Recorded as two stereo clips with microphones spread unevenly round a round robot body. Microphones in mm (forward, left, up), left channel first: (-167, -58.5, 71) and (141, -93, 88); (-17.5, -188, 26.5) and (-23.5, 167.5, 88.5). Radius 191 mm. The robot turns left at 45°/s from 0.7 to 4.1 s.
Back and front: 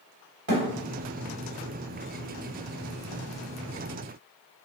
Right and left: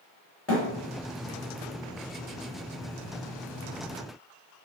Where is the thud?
5° left, 1.3 m.